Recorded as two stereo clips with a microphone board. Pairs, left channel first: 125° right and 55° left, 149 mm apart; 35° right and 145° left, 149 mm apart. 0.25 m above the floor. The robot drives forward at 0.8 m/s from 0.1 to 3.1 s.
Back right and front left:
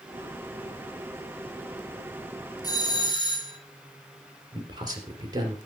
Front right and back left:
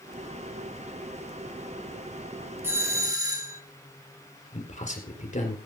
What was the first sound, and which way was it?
A doorbell, 155° right.